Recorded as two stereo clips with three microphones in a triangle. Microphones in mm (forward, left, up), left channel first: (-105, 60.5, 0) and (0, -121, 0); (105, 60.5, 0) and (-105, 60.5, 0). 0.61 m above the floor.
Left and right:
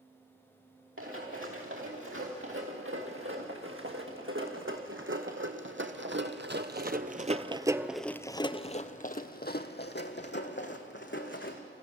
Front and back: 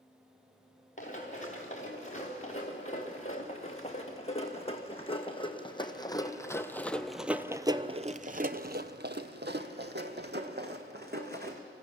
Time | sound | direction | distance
1.0 | running footsteps | 55° right | 4 m